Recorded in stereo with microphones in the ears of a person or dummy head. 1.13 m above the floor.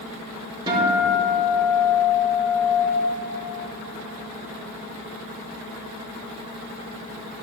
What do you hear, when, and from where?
0.7 s a guitar: 20° right (ahead or behind), 2.5 m